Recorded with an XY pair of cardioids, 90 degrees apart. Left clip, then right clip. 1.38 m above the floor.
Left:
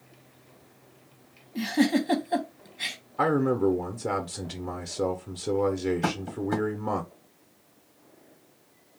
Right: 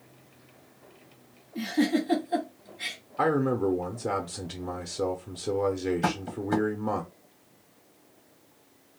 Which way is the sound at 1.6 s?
55° left.